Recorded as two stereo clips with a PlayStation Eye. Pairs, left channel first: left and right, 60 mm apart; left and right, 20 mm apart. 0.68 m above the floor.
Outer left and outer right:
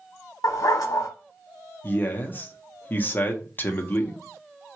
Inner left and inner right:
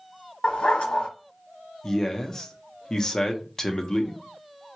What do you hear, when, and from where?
0.4 s a dog barking: 85° left, 1.0 m
1.8 s a man speaking: 35° left (ahead or behind), 0.7 m